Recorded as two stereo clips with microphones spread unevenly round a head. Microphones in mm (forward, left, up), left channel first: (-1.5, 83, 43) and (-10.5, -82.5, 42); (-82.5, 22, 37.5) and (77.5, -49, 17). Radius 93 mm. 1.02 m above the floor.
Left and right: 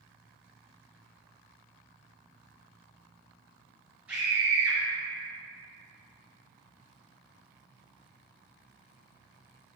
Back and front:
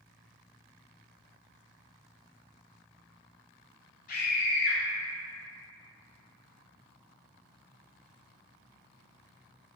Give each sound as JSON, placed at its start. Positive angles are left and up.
{"t": 4.1, "sound": "a scream", "azimuth_deg": -175, "distance_m": 0.6}